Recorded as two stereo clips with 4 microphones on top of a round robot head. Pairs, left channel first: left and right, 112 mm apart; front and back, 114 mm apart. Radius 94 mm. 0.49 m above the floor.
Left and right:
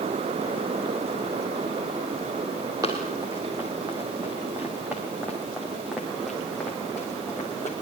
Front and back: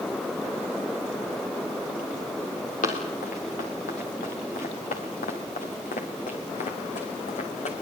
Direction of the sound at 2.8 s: 20° right.